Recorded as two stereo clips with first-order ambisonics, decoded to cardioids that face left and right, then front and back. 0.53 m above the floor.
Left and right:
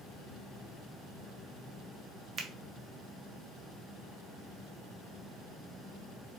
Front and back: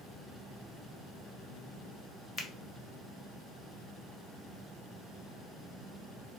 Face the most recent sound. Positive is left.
turn(degrees=-50)